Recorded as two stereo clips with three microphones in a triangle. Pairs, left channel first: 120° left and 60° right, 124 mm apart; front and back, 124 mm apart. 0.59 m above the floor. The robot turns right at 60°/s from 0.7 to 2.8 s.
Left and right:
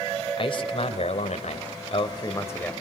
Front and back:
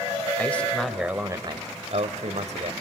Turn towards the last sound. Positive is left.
turn(degrees=-155)